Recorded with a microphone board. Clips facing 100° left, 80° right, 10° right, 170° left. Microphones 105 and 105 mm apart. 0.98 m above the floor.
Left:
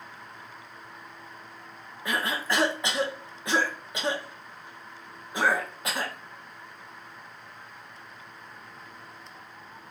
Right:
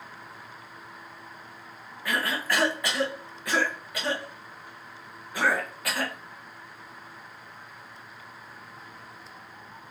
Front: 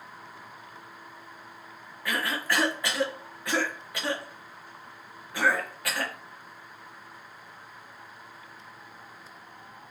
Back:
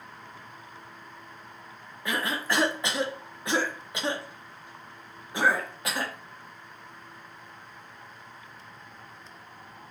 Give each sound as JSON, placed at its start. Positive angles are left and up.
{"t": 2.0, "sound": "a cough", "azimuth_deg": 130, "distance_m": 0.8}